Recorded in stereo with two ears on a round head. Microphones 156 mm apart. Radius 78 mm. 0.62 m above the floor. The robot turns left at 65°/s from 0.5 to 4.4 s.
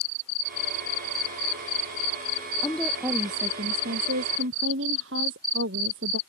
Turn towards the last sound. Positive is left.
turn(degrees=-100)